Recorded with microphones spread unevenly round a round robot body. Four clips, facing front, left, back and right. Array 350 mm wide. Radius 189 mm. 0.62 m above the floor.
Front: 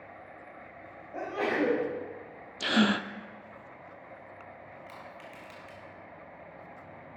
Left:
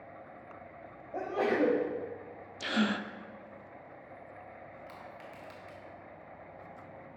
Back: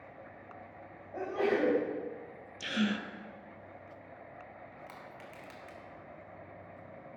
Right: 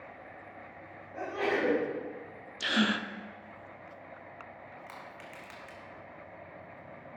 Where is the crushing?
150° right, 1.6 m.